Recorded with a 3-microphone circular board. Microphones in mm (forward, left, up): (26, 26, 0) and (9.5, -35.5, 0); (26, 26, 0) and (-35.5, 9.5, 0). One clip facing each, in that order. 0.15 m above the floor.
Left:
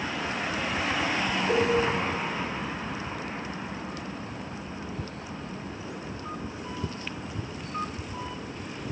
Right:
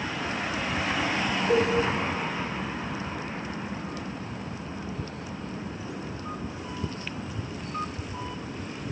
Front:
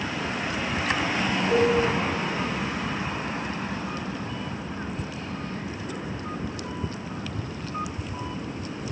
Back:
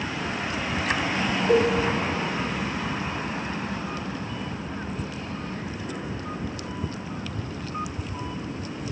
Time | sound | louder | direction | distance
1.5 | a cowbell | right 2 dB, back 1 dB | 145° left | 6.5 m